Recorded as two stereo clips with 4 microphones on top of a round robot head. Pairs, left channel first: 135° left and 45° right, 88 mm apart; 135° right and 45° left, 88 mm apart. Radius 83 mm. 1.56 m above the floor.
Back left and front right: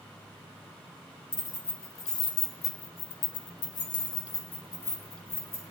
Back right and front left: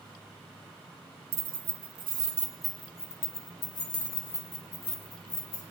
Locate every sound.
1.3 s keys jangling: 55° left, 1.0 m; by 5.6 s 165° right, 2.5 m